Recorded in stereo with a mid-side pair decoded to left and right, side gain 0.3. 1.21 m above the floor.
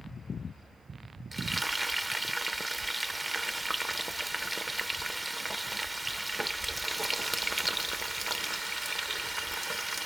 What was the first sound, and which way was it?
Frying, 30° right.